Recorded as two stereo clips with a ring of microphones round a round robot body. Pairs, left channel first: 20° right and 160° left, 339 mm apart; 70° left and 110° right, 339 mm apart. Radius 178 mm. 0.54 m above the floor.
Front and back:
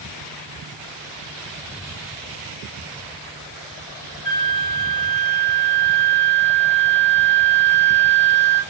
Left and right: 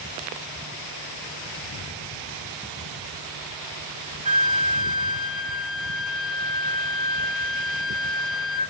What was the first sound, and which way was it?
A flute, 10° left.